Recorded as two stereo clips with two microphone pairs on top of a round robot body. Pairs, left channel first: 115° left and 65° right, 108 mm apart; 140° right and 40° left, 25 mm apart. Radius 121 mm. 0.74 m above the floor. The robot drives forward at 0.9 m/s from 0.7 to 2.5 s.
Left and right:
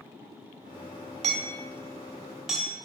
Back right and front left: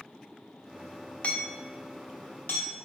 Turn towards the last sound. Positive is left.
turn(degrees=-155)